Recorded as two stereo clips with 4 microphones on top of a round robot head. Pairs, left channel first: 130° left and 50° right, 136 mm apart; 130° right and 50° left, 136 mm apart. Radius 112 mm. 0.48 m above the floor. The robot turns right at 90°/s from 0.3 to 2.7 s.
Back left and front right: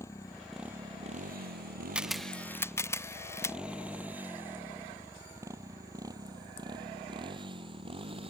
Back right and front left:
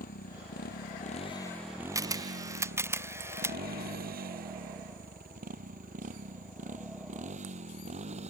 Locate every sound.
0.0 s a motorcycle: 155° right; by 8.3 s 5° left
1.9 s a camera shutter: 25° left; by 3.6 s 90° left